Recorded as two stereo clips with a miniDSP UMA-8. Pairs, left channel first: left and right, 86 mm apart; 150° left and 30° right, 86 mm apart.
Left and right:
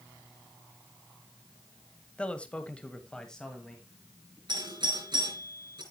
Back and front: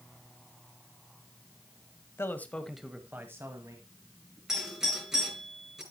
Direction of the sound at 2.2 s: 150° left.